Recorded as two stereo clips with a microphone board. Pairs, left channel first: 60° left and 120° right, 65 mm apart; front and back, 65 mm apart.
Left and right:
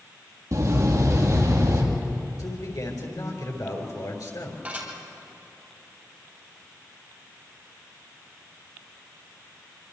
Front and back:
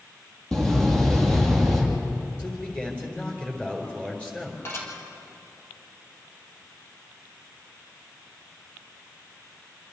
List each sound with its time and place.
0.5 s a door slam: 85° right, 4.5 m
2.4 s a man speaking: 70° left, 4.5 m
4.7 s dishes clattering: 50° right, 4.5 m